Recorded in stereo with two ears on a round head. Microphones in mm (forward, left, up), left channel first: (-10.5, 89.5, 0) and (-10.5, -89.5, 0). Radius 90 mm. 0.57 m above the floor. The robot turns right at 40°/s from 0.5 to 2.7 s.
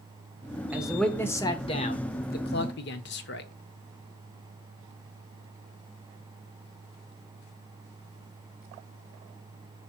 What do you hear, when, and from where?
0.7 s a man speaking: 10° right, 1.2 m; by 3.5 s 70° left, 1.2 m